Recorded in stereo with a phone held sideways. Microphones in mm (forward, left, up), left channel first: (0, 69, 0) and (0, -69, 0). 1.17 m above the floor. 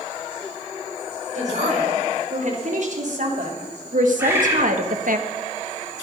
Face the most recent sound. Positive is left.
turn(degrees=-15)  # may be behind; listen again after turning